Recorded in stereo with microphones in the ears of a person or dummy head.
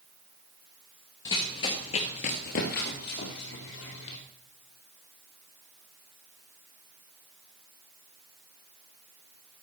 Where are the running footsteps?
15° left (ahead or behind), 1.6 m; by 4.2 s 60° left (ahead or behind), 3 m.